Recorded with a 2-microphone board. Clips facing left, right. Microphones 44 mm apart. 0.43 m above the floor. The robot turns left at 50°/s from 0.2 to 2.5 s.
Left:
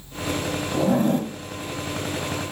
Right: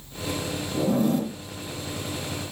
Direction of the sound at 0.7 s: 75° left.